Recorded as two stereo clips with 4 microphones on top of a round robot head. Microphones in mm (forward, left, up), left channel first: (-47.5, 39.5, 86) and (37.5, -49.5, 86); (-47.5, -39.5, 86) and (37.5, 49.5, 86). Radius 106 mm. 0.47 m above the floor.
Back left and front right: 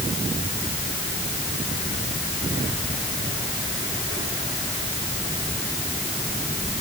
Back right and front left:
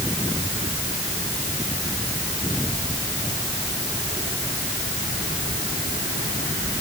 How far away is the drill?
No drill in this recording.